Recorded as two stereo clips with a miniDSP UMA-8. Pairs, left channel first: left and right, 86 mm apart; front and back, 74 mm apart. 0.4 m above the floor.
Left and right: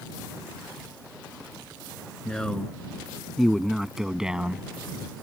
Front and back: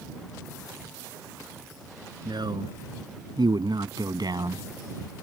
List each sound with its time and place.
2.2 s a man speaking: 170° left; by 4.7 s 165° right